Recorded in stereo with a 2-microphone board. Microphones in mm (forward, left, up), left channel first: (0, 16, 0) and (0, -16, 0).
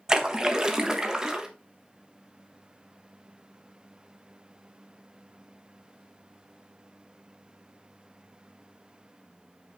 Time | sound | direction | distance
0.1 | a splash | 20° right (ahead or behind) | 1.1 m